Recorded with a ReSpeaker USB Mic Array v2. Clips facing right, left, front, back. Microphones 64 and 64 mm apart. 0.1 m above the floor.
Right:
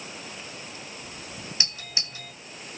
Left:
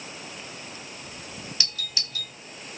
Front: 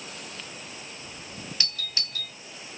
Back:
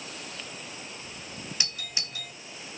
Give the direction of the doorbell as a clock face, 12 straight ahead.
4 o'clock.